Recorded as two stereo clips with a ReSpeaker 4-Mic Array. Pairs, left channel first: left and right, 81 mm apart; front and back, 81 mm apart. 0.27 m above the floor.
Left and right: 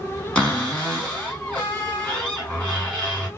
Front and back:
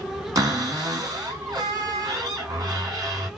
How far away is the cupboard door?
About 2 m.